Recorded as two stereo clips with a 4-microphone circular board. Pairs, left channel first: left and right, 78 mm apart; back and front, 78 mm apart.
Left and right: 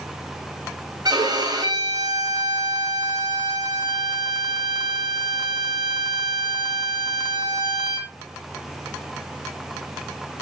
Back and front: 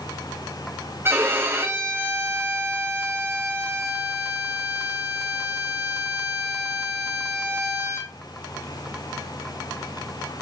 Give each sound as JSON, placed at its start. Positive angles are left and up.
{"t": 1.1, "sound": "a violin", "azimuth_deg": -60, "distance_m": 1.7}